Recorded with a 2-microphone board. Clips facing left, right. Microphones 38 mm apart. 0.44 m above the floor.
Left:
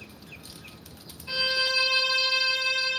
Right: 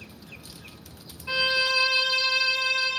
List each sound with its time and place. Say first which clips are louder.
1.3 s a violin: right 3 dB; 40° right (ahead or behind), 1.8 m